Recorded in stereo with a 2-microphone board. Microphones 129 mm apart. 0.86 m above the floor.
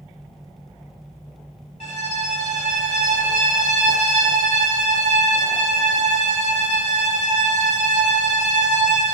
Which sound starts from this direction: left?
A violin, at 1.8 s.